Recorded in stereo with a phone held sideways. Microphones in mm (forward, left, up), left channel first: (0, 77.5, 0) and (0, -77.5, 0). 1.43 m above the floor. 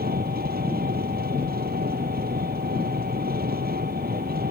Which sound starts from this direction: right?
An engine running, at 0.0 s.